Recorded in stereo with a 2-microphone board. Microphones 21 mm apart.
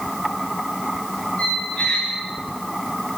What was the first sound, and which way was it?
A squeak, 70° left (ahead or behind).